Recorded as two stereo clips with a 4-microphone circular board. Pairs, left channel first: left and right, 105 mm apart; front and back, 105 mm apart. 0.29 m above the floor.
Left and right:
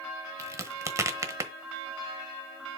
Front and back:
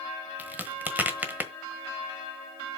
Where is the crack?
120° right, 1.2 m.